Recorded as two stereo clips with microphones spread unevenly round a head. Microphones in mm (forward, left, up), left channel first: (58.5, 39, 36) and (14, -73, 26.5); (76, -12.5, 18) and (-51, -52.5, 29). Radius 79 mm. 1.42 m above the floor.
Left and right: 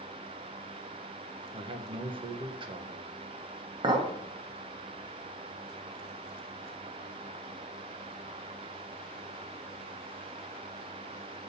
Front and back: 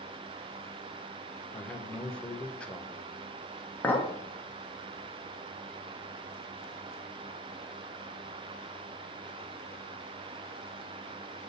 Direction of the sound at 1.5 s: 65° right.